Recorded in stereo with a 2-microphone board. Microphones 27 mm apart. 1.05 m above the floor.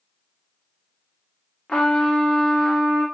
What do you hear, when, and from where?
1.7 s a trumpet: 45° left (ahead or behind), 0.7 m